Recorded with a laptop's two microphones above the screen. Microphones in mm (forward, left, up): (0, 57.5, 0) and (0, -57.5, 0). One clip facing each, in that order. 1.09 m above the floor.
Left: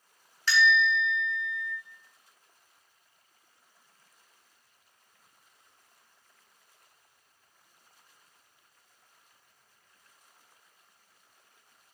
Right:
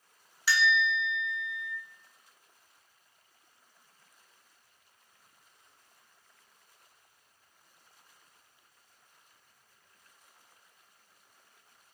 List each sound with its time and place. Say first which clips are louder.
0.5 s a bell: left 3 dB; 10° right (ahead or behind), 0.7 m